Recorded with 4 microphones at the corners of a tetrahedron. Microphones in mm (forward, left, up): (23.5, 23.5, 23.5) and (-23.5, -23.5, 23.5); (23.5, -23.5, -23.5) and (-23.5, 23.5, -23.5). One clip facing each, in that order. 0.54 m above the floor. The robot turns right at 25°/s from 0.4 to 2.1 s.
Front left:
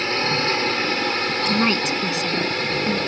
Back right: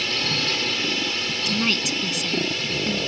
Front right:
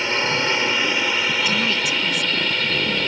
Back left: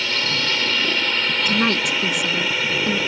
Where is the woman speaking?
90° left; by 3.0 s 105° left.